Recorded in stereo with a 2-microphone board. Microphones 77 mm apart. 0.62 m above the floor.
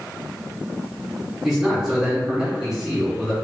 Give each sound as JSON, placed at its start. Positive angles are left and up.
{"t": 1.4, "sound": "a man speaking", "side_deg": -5, "distance_m": 1.1}